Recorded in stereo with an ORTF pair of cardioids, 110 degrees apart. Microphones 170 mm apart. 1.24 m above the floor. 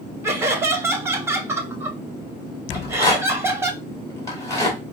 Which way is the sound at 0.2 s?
15° right.